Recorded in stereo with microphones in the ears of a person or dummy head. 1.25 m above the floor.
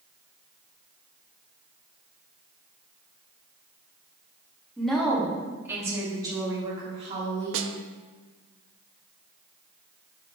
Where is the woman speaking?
5° left (ahead or behind), 1.7 m; by 7.6 s 30° right (ahead or behind), 2.5 m.